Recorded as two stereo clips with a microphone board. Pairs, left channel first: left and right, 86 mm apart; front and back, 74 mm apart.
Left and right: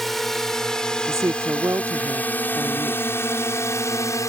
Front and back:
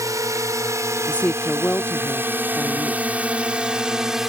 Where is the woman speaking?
60° right.